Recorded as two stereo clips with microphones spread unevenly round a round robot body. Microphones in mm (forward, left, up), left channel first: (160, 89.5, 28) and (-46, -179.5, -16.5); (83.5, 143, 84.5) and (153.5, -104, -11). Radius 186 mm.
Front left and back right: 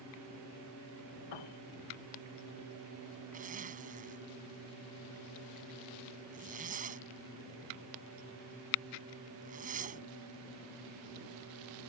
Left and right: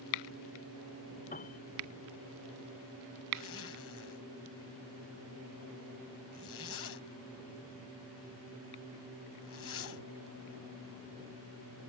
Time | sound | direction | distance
1.3 | a piano | 50° left | ?
3.3 | a zipper | 160° left | ?